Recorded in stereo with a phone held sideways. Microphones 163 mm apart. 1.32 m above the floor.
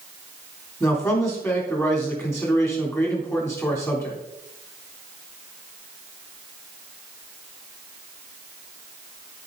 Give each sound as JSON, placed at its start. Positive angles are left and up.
{"t": 0.8, "sound": "a man speaking", "side_deg": 15, "distance_m": 3.5}